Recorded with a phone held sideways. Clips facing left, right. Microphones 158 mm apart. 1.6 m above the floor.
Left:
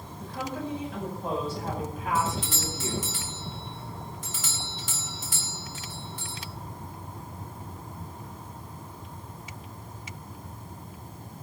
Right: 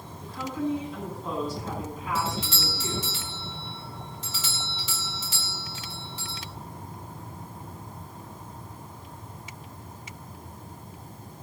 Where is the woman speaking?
60° left (ahead or behind), 9 m.